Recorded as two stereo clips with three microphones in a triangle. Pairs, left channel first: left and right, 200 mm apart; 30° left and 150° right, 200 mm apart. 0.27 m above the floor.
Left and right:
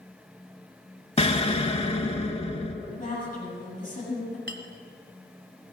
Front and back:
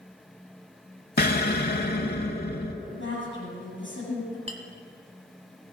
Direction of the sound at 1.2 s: 40° left.